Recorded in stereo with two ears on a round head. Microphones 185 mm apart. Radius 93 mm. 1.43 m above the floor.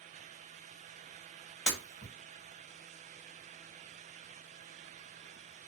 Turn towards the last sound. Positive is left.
turn(degrees=5)  # may be behind; listen again after turning